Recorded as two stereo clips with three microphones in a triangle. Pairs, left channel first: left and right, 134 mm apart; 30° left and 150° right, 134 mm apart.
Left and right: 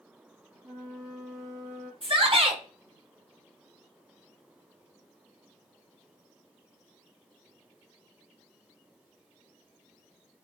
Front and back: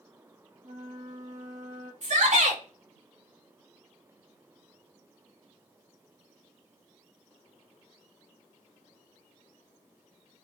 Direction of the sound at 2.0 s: 135° right.